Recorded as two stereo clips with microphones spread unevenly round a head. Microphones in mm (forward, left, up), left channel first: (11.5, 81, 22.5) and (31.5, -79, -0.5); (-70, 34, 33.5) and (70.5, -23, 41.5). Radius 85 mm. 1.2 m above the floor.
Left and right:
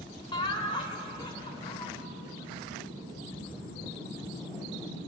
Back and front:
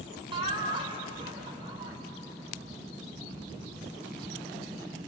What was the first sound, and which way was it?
Laughter, 35° left.